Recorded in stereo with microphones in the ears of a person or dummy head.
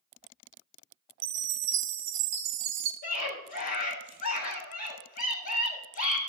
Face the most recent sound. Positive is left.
turn(degrees=55)  # may be behind; listen again after turning